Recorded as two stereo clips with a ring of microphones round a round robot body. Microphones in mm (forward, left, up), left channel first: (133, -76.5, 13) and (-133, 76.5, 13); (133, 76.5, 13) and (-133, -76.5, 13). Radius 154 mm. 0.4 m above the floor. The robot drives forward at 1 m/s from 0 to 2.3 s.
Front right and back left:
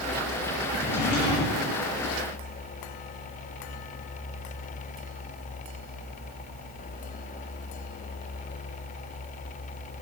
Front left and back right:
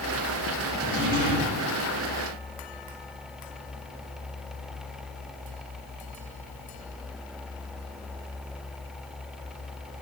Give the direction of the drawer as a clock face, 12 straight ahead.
3 o'clock.